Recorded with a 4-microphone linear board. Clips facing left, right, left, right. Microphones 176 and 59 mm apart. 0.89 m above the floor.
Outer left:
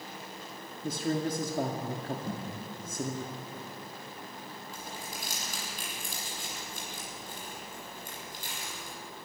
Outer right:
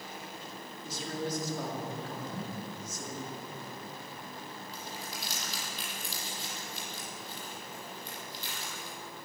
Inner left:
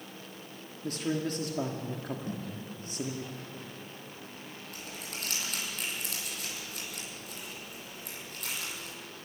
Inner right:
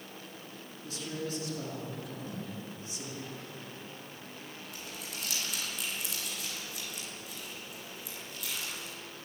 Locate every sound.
0.8 s a man speaking: 55° left (ahead or behind), 2 m
2.3 s a thud: 55° left (ahead or behind), 9 m
4.7 s crumpling: 50° left (ahead or behind), 9 m